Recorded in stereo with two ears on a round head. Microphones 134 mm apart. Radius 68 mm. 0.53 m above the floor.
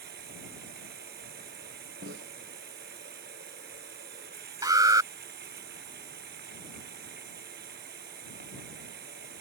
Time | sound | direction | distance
0.0 | running water | 65° right (ahead or behind) | ?
2.0 | a snare drum | 85° right | ?
4.6 | an alarm | 25° right (ahead or behind) | ?